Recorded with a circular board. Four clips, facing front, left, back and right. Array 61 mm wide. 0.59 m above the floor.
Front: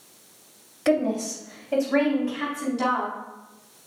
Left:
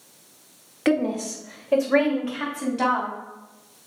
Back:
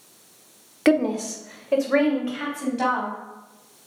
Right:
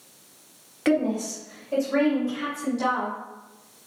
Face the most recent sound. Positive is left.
turn(degrees=130)